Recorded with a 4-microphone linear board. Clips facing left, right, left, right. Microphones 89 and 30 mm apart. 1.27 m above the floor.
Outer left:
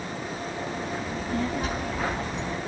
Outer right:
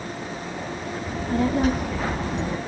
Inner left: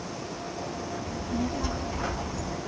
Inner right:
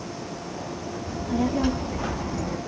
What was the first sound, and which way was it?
A child speaking, 45° right (ahead or behind).